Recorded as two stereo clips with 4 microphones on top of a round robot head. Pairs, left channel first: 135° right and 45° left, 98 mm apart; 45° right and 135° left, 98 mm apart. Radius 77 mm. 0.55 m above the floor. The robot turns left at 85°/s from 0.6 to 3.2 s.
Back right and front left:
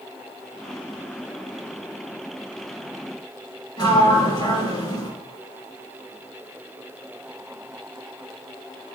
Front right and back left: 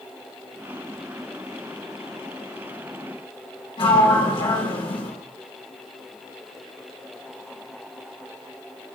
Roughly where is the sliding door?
Right.